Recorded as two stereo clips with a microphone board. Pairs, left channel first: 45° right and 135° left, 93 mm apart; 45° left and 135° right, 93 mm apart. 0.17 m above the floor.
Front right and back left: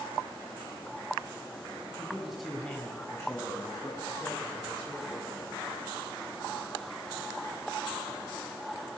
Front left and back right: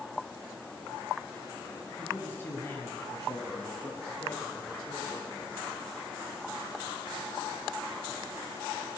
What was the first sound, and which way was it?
A man speaking, 95° left.